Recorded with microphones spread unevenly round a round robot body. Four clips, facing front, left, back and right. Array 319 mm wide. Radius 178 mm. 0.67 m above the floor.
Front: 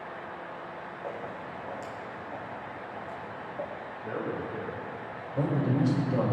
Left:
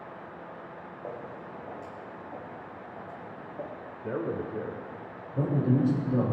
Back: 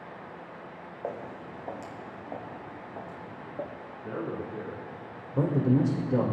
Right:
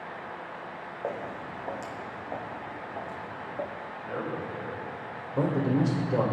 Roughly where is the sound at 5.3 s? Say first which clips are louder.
Right 1 dB, back 3 dB; behind.